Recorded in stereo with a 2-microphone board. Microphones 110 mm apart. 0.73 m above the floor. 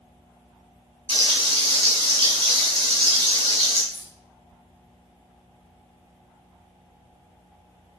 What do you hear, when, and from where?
1.1 s frying: 55° right (ahead or behind), 4.5 m
3.9 s keys jangling: 55° right (ahead or behind), 3 m